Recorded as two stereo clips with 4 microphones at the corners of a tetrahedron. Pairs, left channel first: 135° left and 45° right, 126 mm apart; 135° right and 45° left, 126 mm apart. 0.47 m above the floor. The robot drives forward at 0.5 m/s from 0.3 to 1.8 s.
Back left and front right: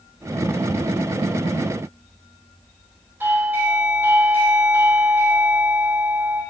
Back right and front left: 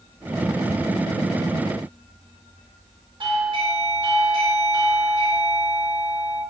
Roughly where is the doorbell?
Ahead.